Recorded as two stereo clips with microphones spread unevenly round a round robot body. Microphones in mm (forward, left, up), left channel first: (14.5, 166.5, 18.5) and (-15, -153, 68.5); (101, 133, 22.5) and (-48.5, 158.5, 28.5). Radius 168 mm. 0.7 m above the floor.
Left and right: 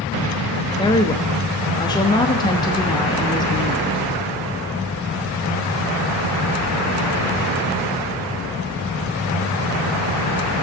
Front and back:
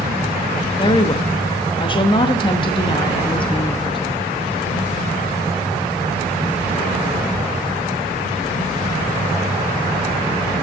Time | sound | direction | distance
0.8 | a woman speaking | 25° left | 1.0 m